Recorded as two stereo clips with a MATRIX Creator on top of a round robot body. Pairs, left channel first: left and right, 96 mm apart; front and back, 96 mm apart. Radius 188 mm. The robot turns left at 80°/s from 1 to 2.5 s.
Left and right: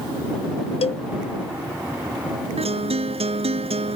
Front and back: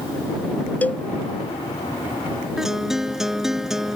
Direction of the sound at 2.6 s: 95° right.